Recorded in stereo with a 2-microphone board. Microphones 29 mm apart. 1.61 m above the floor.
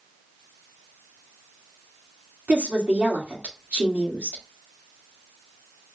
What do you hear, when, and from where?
2.5 s a woman speaking: 85° right, 2 m